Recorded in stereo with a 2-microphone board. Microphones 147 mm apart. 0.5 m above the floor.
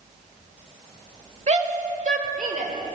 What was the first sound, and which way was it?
A shout, 50° right (ahead or behind).